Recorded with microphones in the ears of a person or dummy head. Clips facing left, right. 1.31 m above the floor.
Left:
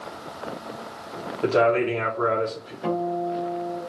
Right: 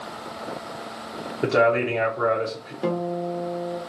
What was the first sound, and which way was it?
A man speaking, 25° right (ahead or behind).